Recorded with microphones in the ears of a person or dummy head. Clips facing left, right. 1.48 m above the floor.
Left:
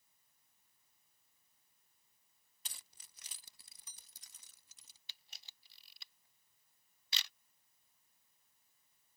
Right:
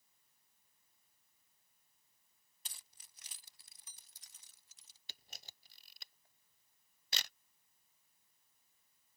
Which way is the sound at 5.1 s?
50° right (ahead or behind).